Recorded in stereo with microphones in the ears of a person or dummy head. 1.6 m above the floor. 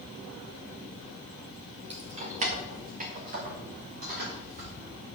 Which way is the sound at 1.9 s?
35° right (ahead or behind).